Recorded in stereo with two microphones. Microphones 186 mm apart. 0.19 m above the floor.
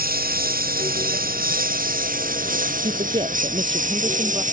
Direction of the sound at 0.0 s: 55° right (ahead or behind).